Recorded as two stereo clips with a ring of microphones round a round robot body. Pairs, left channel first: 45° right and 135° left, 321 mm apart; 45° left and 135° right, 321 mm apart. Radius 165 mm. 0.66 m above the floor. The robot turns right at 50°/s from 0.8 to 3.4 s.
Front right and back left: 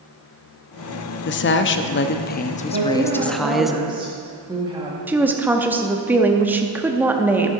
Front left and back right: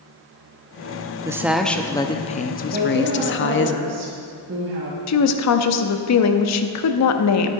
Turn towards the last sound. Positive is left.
turn(degrees=50)